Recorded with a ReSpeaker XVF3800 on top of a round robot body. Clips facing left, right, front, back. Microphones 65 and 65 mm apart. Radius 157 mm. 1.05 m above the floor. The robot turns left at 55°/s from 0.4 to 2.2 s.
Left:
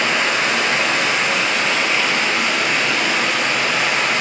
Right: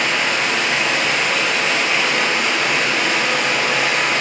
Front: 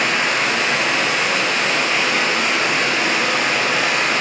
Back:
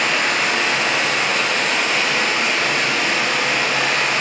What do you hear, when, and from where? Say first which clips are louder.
0.0 s running water: left 1 dB, even; 65° left, 1.3 m; by 4.2 s 35° right, 1.3 m